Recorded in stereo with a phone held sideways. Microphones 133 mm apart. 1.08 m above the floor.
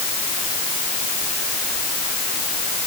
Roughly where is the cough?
I don't hear a cough.